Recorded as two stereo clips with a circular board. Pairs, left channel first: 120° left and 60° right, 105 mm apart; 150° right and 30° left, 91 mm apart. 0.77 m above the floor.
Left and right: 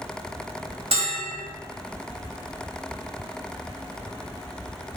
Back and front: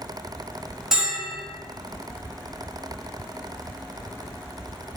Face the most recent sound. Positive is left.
turn(degrees=-55)